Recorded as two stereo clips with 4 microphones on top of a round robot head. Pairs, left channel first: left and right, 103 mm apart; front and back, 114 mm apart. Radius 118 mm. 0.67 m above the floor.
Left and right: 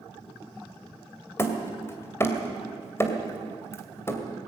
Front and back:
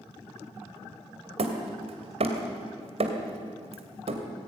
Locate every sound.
1.4 s hammering: 155° left, 2.5 m